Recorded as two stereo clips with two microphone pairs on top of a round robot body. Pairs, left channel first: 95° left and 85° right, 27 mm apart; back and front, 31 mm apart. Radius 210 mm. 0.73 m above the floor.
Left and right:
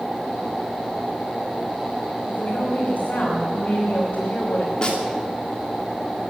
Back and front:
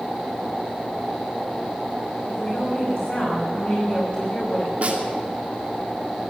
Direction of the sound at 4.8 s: 40° left.